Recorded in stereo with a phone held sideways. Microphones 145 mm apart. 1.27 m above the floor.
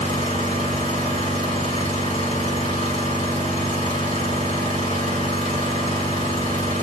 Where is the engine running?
45° left (ahead or behind), 1.9 m.